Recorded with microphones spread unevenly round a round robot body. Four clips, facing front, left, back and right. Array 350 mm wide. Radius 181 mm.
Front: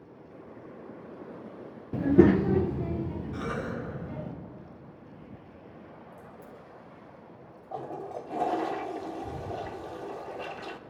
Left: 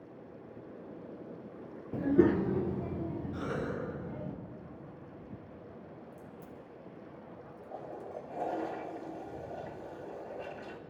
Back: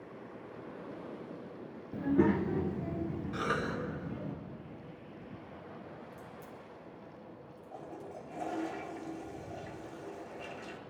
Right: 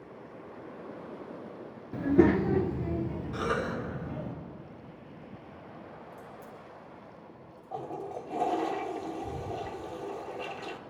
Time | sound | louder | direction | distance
1.9 | a child speaking | right 3 dB, front 8 dB | 5° left | 0.5 m
3.3 | a cough | right 7 dB, back 1 dB | 110° right | 5 m
6.1 | a crack | right 3 dB, front 1 dB | 145° left | 2.5 m
7.7 | a toilet flushing | right 6 dB, front 9 dB | 55° right | 0.6 m